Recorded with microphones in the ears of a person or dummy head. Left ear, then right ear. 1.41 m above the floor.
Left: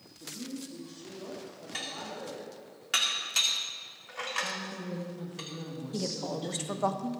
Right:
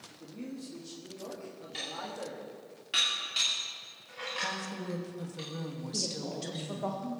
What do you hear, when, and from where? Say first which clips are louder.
0.2 s a man speaking: left 4 dB; 70° right (ahead or behind), 3 m
1.7 s dishes clattering: even; 30° left (ahead or behind), 2.5 m
4.4 s a woman speaking: right 1 dB; 85° right, 2.5 m
5.9 s a woman speaking: left 1 dB; 45° left (ahead or behind), 1.2 m